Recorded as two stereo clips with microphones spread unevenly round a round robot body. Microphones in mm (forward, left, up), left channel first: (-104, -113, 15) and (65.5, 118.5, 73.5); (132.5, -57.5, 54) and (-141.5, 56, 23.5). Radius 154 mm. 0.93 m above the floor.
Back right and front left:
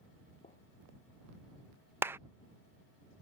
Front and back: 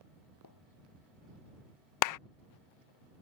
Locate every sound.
0.4 s a gunshot: 55° right
2.0 s a clap: 35° right